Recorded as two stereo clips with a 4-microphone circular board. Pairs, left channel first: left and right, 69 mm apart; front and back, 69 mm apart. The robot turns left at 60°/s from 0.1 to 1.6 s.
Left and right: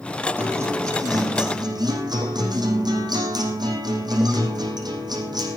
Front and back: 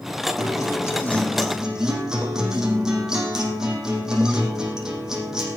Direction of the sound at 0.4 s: 25° right.